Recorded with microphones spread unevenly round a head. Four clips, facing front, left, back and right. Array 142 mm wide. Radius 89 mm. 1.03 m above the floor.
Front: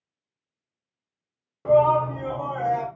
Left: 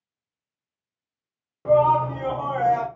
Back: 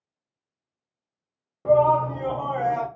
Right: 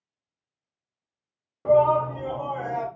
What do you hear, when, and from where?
1.6 s a shout: 30° right, 0.6 m; by 2.9 s 105° left, 0.8 m